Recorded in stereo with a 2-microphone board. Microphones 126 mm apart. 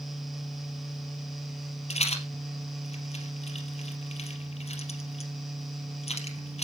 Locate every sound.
1.9 s a rattle: 60° left (ahead or behind), 2.5 m